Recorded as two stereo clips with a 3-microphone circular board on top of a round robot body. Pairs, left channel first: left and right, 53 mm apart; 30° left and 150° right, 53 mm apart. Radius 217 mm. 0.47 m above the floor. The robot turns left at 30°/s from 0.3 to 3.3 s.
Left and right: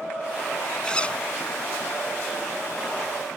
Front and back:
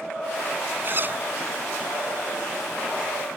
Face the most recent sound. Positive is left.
turn(degrees=90)